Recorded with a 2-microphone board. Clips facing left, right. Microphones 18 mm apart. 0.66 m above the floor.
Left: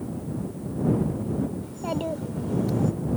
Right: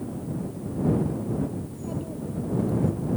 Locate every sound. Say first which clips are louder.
1.6 s a child speaking: left 5 dB; 75° left (ahead or behind)